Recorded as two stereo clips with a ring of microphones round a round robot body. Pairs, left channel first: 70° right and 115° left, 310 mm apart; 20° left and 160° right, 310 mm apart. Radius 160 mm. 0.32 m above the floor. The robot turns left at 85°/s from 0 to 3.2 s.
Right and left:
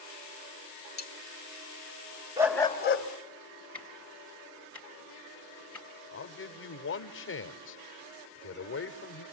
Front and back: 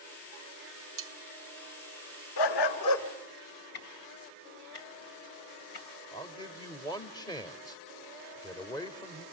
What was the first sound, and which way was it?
Cutlery clinking, 120° right.